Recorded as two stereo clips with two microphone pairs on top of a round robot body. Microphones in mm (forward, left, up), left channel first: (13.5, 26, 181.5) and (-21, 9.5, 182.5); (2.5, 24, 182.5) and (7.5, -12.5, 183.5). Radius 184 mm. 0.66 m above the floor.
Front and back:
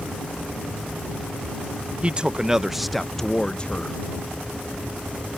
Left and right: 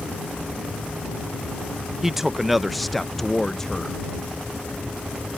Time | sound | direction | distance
2.0 | a man speaking | 155° right | ?